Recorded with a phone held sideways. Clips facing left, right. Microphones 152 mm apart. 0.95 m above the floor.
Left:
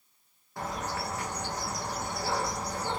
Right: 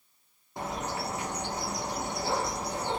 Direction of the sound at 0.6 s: 20° right (ahead or behind).